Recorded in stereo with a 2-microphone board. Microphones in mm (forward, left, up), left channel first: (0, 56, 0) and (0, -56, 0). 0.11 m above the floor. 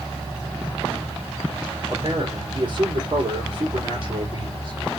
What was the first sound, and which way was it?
A man speaking, 45° right (ahead or behind).